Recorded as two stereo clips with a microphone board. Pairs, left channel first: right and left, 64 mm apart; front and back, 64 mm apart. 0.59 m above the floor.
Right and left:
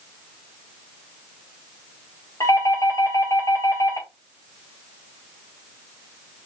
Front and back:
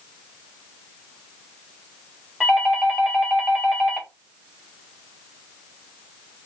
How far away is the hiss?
I don't hear a hiss.